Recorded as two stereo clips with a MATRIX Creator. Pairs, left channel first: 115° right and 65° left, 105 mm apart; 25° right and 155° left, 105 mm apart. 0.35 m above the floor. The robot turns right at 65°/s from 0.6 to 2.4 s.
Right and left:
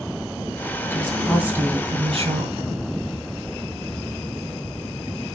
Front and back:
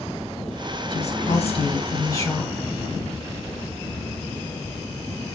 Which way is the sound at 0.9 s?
45° right.